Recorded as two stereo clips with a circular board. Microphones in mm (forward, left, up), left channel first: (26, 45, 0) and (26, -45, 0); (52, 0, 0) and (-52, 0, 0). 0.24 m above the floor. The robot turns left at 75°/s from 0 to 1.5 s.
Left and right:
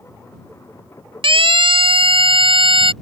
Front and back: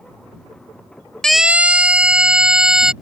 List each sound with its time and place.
1.2 s a siren: 85° right; by 2.9 s 95° right